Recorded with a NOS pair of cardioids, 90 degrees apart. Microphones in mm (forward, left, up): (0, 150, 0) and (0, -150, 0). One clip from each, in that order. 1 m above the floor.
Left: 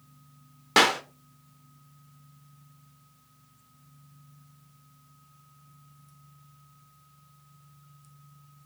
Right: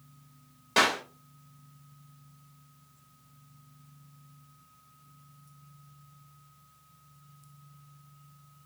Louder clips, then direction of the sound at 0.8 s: Left 4 dB; 45° left.